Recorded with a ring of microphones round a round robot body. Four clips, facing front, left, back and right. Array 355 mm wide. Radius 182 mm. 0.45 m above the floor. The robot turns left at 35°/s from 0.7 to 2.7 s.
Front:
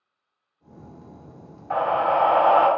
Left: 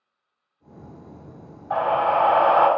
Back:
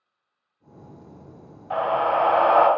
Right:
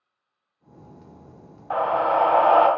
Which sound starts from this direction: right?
A scream, at 1.7 s.